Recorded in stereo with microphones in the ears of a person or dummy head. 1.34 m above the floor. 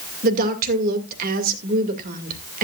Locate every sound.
0.2 s a woman speaking: 50° right (ahead or behind), 2 m